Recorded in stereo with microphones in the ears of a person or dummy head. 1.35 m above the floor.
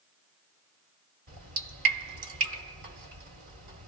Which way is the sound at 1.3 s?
50° right (ahead or behind).